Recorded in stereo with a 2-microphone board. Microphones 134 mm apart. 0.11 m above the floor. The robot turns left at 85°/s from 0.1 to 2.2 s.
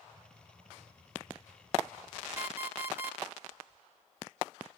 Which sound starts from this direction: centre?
An alarm clock, at 2.4 s.